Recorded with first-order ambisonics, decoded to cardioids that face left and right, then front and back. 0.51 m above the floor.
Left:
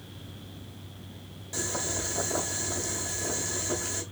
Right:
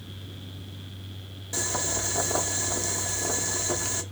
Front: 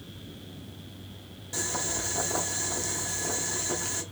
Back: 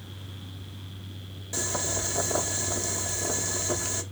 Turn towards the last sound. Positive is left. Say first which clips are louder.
# right 3 dB, back 1 dB
turn(degrees=-120)